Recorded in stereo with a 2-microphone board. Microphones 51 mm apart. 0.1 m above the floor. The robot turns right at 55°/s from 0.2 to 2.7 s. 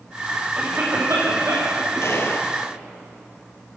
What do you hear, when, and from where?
0.6 s a cough: 150° right, 8 m; by 1.8 s 80° right, 8 m
2.0 s a gunshot: 55° left (ahead or behind), 2.5 m; by 2.5 s 40° left (ahead or behind), 2.5 m